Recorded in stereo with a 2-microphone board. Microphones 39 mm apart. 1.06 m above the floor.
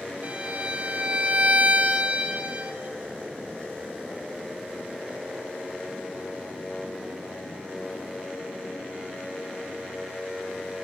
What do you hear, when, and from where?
0.2 s a violin: 35° right (ahead or behind), 1.8 m